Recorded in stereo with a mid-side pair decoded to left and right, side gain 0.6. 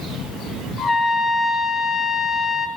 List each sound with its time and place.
0.8 s a trumpet: 30° left, 2.5 m